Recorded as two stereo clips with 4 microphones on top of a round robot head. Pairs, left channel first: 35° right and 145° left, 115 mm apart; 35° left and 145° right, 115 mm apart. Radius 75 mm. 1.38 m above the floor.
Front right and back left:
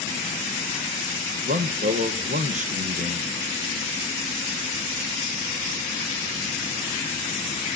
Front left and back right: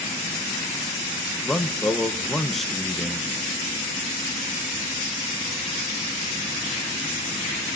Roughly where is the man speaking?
Behind left.